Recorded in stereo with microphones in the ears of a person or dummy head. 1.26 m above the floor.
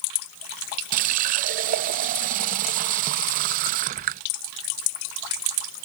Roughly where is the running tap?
Right.